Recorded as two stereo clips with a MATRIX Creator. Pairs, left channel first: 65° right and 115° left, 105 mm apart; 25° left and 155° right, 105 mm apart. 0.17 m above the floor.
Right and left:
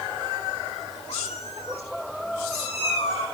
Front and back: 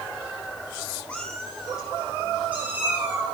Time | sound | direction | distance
1.1 | a cat meowing | 60° right | 3.5 m